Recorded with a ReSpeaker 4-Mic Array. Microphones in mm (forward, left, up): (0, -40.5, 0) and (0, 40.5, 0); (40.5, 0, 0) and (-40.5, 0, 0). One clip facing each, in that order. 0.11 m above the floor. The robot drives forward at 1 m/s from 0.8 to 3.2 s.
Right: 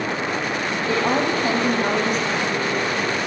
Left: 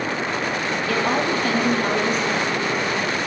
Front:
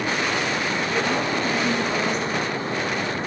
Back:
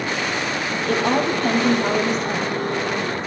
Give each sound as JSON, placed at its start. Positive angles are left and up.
{"t": 0.9, "sound": "a woman speaking", "azimuth_deg": -155, "distance_m": 3.5}